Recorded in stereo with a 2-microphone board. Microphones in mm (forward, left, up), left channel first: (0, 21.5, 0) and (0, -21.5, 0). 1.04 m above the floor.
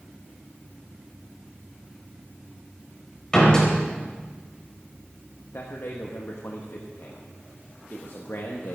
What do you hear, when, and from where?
3.3 s a door slam: 15° left (ahead or behind), 4 m
5.5 s a man speaking: 75° left (ahead or behind), 1.3 m